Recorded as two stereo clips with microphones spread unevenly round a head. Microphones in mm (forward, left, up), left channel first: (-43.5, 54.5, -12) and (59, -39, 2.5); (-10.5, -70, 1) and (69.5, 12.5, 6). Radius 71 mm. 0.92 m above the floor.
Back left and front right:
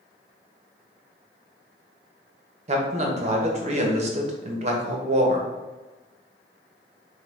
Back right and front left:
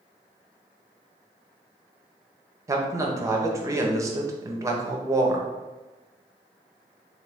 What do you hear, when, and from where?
2.7 s a man speaking: 10° right, 0.9 m